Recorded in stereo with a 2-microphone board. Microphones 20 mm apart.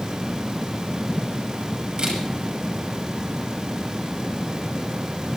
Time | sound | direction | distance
2.0 | a camera shutter | 45° right (ahead or behind) | 8.5 m